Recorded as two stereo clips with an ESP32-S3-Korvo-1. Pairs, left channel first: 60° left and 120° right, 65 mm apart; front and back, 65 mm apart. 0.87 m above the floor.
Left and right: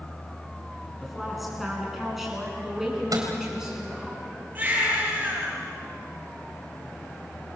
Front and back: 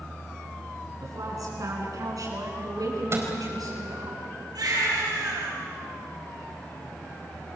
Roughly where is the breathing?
I don't hear breathing.